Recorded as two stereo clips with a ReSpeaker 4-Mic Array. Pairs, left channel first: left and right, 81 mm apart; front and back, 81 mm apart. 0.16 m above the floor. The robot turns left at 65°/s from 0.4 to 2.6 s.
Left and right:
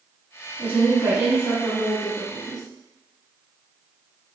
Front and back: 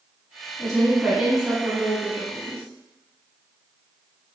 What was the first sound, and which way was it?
A woman speaking, 60° right.